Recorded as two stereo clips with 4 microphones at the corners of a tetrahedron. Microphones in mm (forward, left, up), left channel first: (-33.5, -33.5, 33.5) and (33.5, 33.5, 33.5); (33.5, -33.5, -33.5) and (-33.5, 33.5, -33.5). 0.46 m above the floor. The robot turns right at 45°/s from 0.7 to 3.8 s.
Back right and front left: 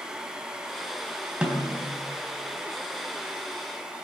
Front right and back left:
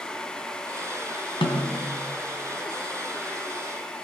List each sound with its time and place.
1.4 s a snare drum: 35° right, 3 m; by 1.9 s 10° right, 3 m